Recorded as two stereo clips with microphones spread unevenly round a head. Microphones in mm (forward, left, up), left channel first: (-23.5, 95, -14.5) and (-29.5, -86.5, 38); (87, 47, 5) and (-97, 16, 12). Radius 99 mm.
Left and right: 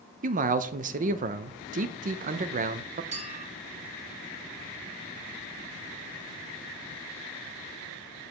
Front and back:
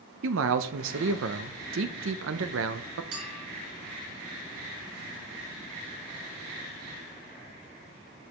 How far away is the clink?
About 3.5 m.